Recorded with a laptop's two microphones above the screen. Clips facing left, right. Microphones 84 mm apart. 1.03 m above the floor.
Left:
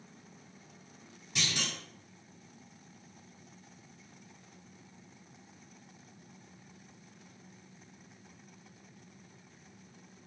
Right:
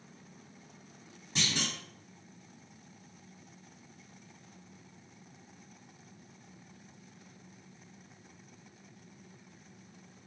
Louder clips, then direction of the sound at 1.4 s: Right 2 dB; 30° right (ahead or behind).